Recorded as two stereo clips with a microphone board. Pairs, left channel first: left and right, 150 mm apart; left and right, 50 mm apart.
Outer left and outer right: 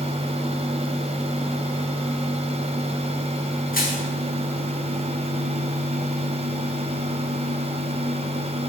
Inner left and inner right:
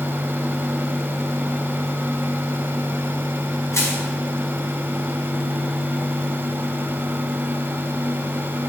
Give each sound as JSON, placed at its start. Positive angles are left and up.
{"t": 3.7, "sound": "crushing", "side_deg": 75, "distance_m": 4.5}